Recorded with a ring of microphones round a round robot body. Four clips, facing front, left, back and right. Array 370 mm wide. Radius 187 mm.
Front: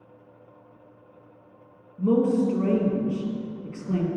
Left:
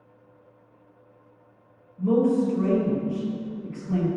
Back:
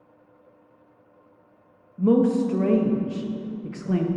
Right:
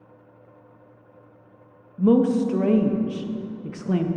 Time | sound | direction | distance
2.0 | a woman speaking | 115° right | 0.7 m